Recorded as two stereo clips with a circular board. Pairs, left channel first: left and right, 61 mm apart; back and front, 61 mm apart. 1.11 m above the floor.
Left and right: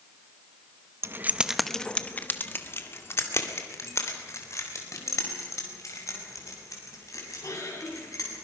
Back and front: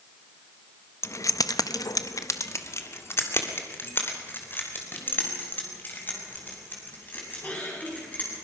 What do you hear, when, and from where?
1.0 s keys jangling: 135° right, 0.7 m; by 8.3 s 120° left, 7 m